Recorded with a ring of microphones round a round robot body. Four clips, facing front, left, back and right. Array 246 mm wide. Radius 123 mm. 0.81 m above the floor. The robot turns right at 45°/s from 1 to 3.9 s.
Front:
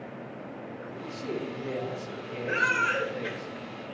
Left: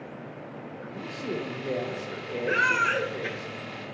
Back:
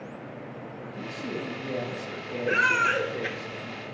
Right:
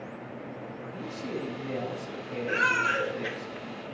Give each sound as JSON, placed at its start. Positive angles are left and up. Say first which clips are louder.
{"t": 0.8, "sound": "a man speaking", "louder": "left 3 dB, even", "azimuth_deg": 55, "distance_m": 3.5}
{"t": 2.5, "sound": "a baby crying", "louder": "left 2 dB, back 3 dB", "azimuth_deg": 140, "distance_m": 1.9}